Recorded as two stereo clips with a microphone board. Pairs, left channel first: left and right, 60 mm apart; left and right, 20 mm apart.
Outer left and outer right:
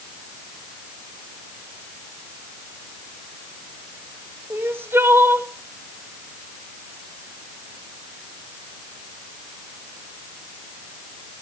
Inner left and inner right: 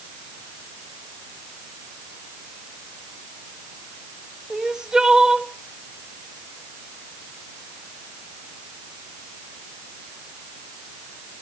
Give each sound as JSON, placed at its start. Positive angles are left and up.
{"t": 4.5, "sound": "crying", "side_deg": -40, "distance_m": 1.1}